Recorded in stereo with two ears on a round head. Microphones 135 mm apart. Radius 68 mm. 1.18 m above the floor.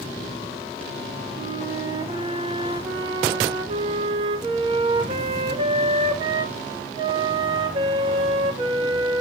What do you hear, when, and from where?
1.4 s a flute: 35° right (ahead or behind), 1.1 m